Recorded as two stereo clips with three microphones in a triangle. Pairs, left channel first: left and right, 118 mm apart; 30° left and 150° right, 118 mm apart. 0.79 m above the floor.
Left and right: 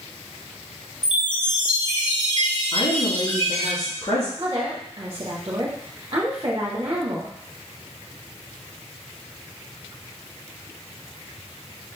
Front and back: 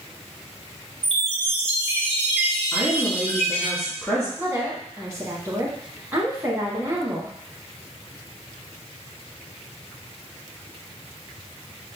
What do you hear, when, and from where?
1.0 s a chime: 55° left, 2.5 m
2.7 s a woman speaking: 110° left, 1.2 m
4.4 s a woman speaking: 85° right, 1.0 m